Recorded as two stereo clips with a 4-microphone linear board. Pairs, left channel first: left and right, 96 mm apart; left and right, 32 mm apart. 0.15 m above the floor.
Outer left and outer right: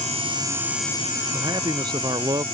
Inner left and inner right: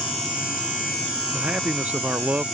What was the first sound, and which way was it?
A man speaking, 50° right (ahead or behind).